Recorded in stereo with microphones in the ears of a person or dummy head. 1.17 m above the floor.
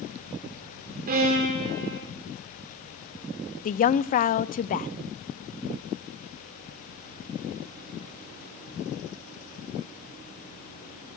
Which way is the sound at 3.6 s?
40° left (ahead or behind).